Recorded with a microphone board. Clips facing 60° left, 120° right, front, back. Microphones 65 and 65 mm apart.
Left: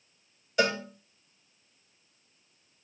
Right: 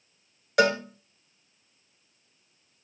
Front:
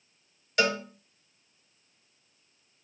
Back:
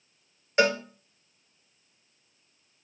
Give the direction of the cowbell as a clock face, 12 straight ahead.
4 o'clock.